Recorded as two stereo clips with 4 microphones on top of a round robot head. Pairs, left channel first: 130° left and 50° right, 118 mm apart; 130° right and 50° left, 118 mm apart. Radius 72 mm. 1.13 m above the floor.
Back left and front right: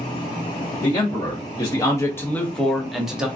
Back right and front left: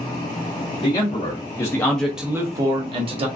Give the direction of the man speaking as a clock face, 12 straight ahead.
6 o'clock.